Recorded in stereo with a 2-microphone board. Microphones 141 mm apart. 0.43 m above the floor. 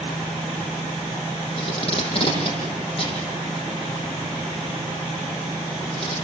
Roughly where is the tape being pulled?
Left.